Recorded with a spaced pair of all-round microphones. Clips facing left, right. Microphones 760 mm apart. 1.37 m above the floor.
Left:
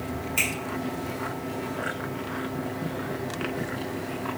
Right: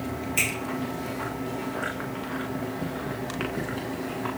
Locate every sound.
0.4 s a finger snap: 50° right (ahead or behind), 1.8 m